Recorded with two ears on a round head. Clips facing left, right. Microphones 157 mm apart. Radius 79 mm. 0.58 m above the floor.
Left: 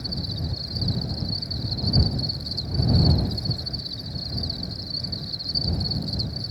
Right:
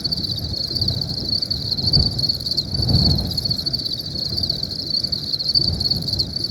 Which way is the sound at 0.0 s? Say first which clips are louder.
Right 2 dB; 50° right (ahead or behind).